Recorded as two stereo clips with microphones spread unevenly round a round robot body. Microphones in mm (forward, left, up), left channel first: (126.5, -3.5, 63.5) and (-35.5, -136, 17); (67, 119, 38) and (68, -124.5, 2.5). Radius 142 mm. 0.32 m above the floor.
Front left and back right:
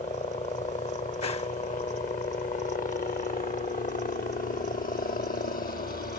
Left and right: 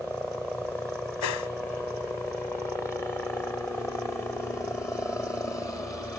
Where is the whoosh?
110° left.